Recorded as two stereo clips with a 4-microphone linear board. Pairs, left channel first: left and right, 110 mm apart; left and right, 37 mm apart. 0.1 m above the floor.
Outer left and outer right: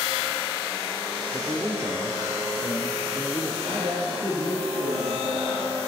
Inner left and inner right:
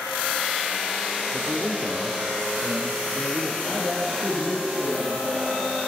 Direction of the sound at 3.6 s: 55° right (ahead or behind).